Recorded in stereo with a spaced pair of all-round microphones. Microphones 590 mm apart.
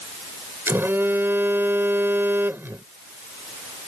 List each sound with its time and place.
0.7 s a phone buzzing: 5° right (ahead or behind)